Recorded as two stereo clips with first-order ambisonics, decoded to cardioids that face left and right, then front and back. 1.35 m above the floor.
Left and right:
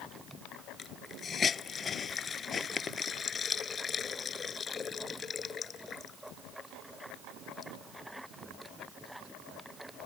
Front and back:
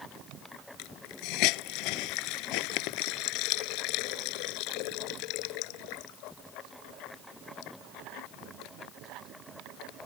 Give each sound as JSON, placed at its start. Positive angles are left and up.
{"t": 0.8, "sound": "a hiss", "azimuth_deg": 25}